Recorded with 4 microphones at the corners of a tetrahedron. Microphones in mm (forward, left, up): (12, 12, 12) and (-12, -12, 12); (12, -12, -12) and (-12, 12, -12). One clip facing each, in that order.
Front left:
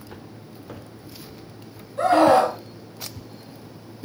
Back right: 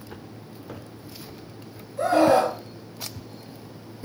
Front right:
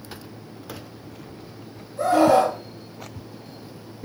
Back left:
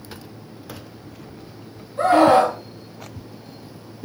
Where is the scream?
85° left, 4.5 m.